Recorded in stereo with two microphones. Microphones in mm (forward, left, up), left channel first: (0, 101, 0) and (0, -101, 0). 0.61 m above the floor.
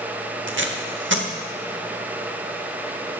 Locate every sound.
0.5 s tape being pulled: 65° right (ahead or behind), 0.7 m